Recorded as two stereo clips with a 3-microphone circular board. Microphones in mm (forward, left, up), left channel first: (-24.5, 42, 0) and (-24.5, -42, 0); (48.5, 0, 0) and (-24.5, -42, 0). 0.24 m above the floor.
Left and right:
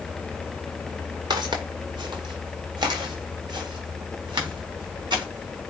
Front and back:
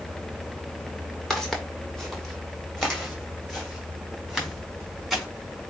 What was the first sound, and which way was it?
Footsteps, 55° right.